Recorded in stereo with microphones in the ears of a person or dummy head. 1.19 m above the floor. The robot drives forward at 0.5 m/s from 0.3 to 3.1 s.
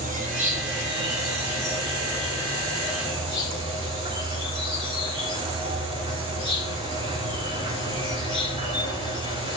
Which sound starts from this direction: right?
An insect, at 0.0 s.